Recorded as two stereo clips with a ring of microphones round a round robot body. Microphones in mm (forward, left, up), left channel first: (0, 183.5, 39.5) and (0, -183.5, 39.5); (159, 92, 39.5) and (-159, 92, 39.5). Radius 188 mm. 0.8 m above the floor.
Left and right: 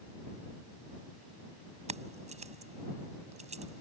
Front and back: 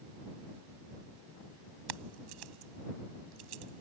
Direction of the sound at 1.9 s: 165° right.